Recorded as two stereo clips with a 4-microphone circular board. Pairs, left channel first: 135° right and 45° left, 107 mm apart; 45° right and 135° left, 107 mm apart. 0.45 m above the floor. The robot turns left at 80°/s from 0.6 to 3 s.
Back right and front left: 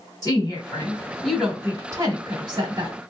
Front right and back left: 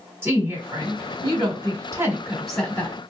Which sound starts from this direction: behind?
A woman speaking, at 0.2 s.